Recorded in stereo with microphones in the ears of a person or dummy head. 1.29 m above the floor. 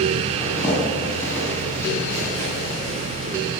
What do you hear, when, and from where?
0.4 s a zipper: 10° left (ahead or behind), 8.5 m